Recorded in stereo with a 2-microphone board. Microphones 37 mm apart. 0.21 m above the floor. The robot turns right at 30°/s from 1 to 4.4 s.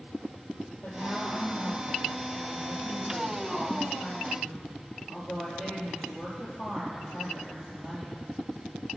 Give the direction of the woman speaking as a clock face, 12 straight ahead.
9 o'clock.